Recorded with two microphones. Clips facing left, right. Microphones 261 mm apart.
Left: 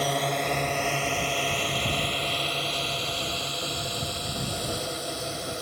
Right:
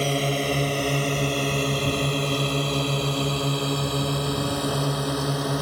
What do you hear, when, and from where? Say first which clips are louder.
0.0 s a drone: right 4 dB; 30° right (ahead or behind); by 5.6 s 70° right (ahead or behind)